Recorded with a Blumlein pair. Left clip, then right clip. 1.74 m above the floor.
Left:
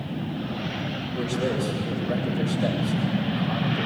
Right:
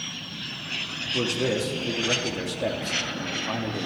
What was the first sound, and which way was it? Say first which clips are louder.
A man speaking: right 2 dB; 65° right.